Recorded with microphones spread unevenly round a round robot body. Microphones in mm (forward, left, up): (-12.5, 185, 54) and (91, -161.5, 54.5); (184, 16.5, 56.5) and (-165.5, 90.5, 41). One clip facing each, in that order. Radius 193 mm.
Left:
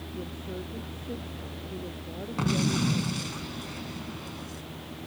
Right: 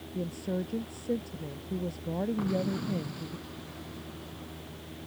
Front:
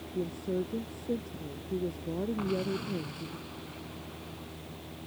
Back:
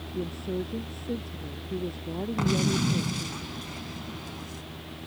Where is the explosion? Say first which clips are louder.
Left 3 dB, back 5 dB; 145° left.